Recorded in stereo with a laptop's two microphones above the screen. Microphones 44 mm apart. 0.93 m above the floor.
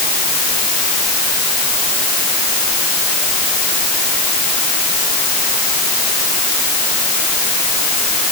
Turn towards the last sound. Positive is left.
No sound to turn to.